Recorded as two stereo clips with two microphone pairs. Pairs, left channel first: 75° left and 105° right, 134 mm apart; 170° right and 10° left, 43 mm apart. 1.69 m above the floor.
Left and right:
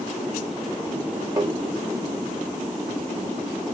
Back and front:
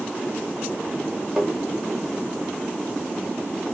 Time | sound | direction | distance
1.4 | tapping | 60° right | 1.4 m